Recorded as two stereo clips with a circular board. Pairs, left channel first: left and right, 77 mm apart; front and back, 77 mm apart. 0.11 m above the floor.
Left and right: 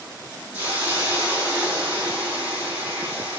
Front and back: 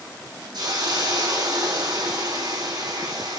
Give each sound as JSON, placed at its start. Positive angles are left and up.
{"t": 0.5, "sound": "a hiss", "azimuth_deg": -160, "distance_m": 3.5}